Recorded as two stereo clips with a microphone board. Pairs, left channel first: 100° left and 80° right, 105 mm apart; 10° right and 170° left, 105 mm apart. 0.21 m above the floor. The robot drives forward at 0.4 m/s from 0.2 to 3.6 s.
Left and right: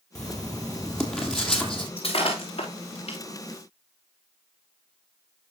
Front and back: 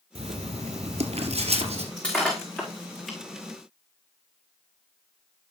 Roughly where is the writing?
Behind.